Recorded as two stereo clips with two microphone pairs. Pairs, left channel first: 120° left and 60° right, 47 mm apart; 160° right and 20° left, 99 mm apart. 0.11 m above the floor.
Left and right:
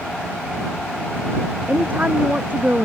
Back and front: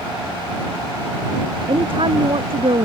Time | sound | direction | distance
1.7 | a woman speaking | 5° right | ?